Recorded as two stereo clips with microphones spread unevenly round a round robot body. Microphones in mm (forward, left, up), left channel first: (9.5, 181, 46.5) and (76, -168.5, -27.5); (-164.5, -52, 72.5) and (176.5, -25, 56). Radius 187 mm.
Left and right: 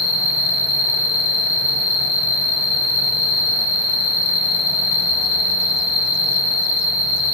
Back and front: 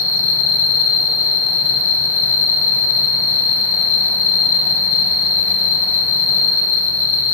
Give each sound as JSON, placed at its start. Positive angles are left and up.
{"t": 0.0, "sound": "an insect", "azimuth_deg": 135, "distance_m": 3.0}